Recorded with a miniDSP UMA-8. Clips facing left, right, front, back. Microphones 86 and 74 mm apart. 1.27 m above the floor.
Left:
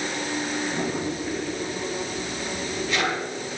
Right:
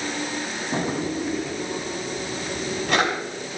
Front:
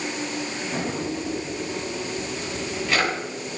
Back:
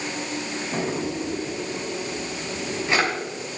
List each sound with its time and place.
0.7 s a drawer: 115° right, 5.5 m